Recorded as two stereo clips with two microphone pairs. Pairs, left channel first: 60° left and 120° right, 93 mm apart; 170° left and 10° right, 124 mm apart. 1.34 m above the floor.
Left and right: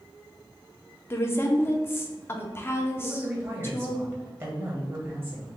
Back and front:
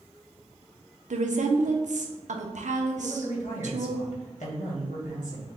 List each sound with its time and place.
1.1 s a woman speaking: 10° right, 0.8 m
3.0 s a man speaking: 175° left, 1.8 m